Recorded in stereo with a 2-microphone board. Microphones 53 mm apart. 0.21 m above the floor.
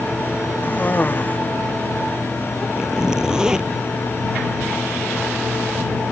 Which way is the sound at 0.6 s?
35° left (ahead or behind).